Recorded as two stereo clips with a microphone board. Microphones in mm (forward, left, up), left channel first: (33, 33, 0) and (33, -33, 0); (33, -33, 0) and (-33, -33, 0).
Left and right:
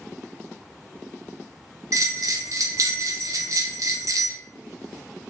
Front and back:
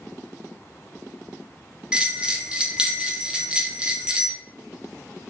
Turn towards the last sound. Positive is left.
turn(degrees=-105)